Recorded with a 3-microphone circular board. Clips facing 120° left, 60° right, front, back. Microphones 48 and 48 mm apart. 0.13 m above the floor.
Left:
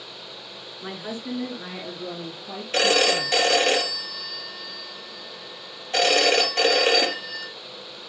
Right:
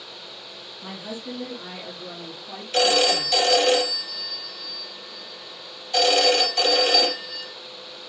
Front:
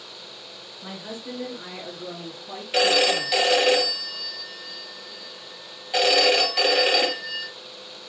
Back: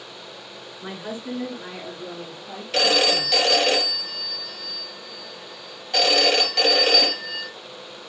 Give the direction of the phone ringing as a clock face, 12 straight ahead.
9 o'clock.